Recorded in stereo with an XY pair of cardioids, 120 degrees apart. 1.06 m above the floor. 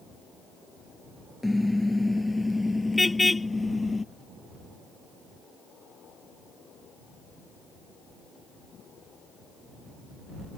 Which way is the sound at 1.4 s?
5° left.